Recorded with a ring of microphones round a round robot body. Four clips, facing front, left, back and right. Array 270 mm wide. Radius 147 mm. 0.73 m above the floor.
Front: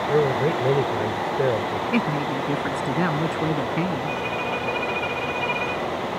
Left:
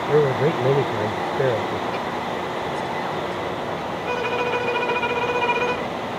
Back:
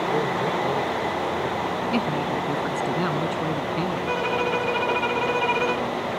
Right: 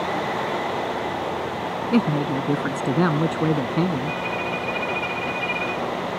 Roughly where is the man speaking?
Left.